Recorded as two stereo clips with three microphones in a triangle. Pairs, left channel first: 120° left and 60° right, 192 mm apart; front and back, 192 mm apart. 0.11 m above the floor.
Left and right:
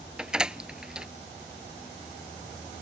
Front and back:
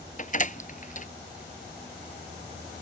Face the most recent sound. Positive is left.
turn(degrees=25)